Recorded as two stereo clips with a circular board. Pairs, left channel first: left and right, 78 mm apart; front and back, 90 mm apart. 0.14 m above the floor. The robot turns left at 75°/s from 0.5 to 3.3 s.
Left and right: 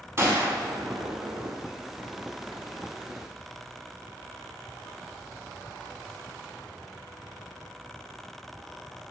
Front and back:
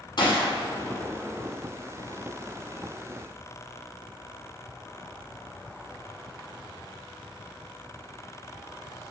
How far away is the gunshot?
About 1.6 m.